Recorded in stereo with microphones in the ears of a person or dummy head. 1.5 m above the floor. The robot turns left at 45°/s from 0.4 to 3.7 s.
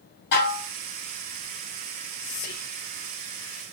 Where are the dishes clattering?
60° left (ahead or behind), 1.6 m; by 0.7 s 45° left (ahead or behind), 1.6 m.